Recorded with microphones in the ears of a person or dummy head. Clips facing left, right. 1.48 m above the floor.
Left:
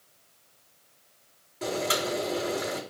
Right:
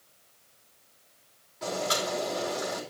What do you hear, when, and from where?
1.6 s boiling: 35° left (ahead or behind), 5 m